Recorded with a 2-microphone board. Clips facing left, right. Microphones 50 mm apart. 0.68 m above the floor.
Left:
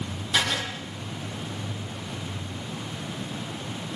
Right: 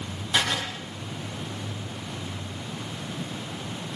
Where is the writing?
5° right (ahead or behind), 5.5 m.